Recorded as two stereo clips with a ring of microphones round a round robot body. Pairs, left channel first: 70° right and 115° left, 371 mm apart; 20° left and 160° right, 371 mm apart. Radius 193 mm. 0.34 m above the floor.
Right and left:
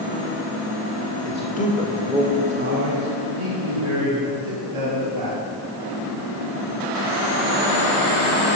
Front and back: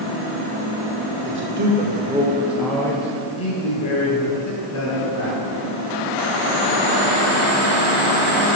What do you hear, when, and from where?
1.2 s a man speaking: 115° right, 1.5 m; by 5.4 s 85° left, 3.5 m